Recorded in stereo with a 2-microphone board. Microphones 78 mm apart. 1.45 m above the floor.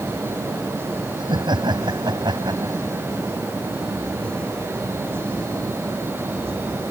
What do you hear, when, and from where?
1.2 s laughter: 70° right (ahead or behind); by 2.9 s 65° right (ahead or behind)